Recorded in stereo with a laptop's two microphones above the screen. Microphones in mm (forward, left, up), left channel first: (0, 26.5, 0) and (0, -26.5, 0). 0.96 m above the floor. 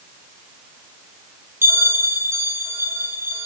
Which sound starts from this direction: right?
A bell, at 1.6 s.